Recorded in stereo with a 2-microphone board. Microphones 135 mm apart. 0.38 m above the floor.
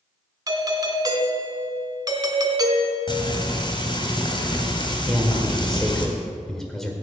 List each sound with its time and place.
0.5 s a doorbell: 25° right (ahead or behind), 2 m
3.1 s frying: 35° left (ahead or behind), 2.0 m
5.1 s a man speaking: 5° left (ahead or behind), 1.6 m